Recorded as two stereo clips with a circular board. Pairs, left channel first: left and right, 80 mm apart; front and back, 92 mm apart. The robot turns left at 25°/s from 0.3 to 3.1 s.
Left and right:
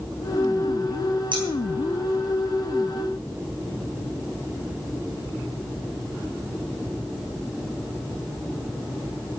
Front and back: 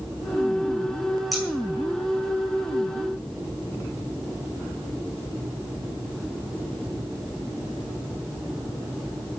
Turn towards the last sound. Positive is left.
turn(degrees=-135)